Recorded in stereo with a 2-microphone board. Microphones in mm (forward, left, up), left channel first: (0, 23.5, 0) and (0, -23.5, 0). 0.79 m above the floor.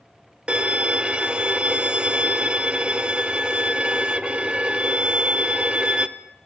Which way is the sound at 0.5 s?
25° right (ahead or behind).